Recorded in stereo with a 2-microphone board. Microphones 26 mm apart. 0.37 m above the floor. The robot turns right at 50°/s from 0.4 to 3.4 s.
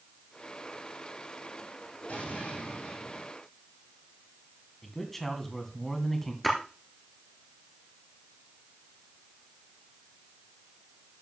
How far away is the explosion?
About 5 m.